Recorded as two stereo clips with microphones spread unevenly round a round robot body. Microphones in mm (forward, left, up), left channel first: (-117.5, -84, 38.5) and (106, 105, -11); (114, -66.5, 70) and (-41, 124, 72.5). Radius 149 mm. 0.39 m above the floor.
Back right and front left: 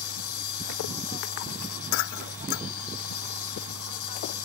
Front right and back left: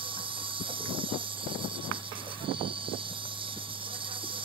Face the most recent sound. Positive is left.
turn(degrees=-160)